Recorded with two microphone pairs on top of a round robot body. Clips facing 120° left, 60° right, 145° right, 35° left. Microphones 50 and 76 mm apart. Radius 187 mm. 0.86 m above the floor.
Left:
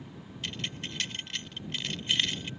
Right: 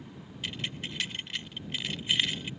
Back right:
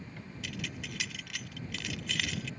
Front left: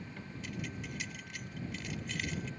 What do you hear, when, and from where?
0.4 s keys jangling: 140° right